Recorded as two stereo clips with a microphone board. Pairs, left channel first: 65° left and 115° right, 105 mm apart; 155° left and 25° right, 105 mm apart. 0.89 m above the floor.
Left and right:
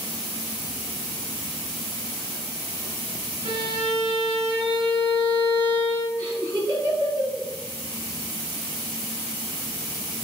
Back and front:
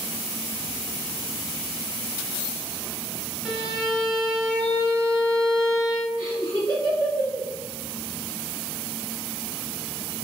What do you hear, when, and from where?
3.5 s a violin: 110° right, 0.9 m
6.2 s laughter: 65° right, 1.6 m